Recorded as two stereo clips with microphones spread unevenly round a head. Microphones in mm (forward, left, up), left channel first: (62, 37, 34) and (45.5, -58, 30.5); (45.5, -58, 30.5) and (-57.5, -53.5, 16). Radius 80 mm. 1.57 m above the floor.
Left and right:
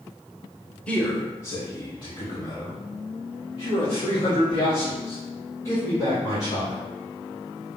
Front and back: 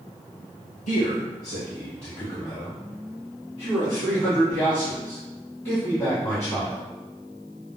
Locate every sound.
0.9 s a man speaking: 5° left, 1.0 m; by 6.9 s 85° left, 5.5 m